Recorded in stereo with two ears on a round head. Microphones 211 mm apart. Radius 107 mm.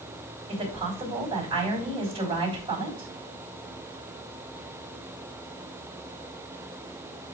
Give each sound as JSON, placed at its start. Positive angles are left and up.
{"t": 0.5, "sound": "a woman speaking", "side_deg": -25, "distance_m": 3.5}